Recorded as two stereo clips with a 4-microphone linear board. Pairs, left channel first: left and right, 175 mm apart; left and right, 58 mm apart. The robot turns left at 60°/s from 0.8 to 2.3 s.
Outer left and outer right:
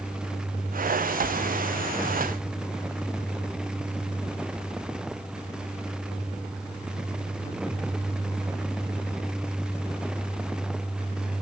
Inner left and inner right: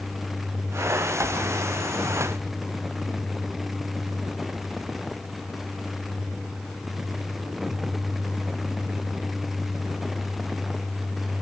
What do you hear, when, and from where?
Only background noise.